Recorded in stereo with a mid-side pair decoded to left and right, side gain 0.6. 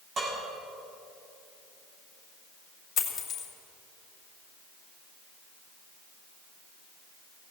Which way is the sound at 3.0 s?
45° left.